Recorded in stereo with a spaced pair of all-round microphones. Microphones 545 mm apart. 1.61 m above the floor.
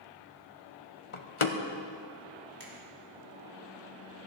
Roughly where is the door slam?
Left.